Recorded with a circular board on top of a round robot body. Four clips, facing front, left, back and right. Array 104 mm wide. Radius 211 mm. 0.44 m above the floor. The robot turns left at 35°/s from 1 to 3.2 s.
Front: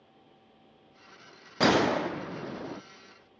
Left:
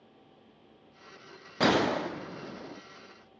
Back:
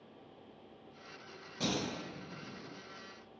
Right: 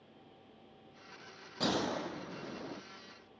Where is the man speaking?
I don't hear a man speaking.